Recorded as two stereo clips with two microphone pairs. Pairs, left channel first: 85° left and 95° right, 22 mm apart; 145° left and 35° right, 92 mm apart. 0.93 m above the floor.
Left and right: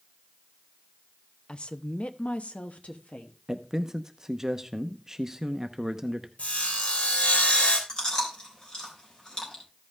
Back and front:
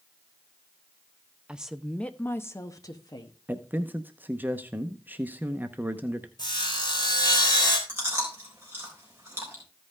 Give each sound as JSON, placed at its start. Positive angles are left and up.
{"t": 1.5, "sound": "a woman speaking", "azimuth_deg": 45, "distance_m": 0.7}
{"t": 3.5, "sound": "a man speaking", "azimuth_deg": -65, "distance_m": 0.8}
{"t": 6.4, "sound": "sawing", "azimuth_deg": 105, "distance_m": 3.0}
{"t": 7.9, "sound": "chewing", "azimuth_deg": 35, "distance_m": 3.5}